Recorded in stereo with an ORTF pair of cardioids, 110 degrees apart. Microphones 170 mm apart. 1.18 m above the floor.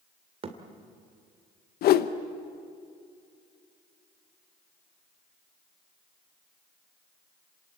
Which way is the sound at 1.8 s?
70° left.